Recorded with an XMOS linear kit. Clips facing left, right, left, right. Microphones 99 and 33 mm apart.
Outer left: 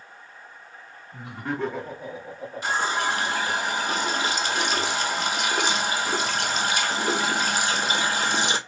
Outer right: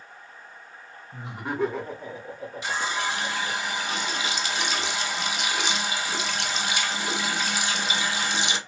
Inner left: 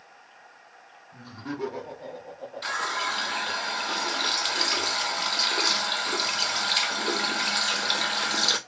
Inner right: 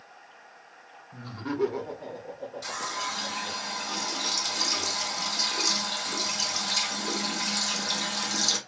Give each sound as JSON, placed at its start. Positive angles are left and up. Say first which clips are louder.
{"t": 1.1, "sound": "laughter", "louder": "even, inner right 3 dB", "side_deg": -25, "distance_m": 1.0}
{"t": 2.6, "sound": "a running tap", "louder": "outer left 4 dB, inner left 6 dB", "side_deg": 45, "distance_m": 0.6}